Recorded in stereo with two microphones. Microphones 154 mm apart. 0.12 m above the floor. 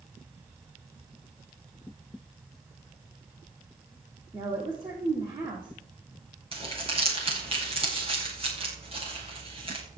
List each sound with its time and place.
4.3 s a woman speaking: 20° right (ahead or behind), 5.5 m
6.5 s crumpling: 35° right (ahead or behind), 6.5 m